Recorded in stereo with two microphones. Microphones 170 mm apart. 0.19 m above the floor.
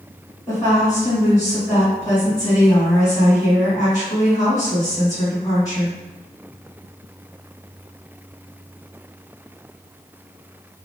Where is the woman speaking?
25° left (ahead or behind), 1.3 m.